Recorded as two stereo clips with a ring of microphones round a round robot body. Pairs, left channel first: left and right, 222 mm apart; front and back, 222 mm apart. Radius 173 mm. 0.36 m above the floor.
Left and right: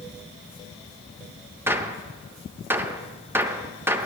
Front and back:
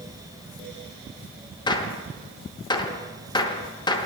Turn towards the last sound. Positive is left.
turn(degrees=-25)